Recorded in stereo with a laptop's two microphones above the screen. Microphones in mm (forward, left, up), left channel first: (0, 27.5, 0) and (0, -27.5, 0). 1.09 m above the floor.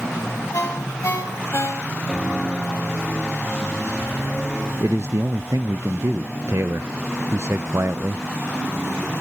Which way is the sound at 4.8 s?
60° right (ahead or behind).